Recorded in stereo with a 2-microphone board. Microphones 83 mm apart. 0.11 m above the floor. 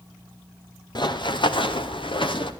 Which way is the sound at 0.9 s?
60° left (ahead or behind).